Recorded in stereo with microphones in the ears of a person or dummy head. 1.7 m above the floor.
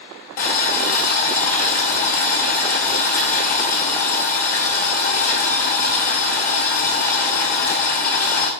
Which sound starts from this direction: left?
Boiling, at 0.4 s.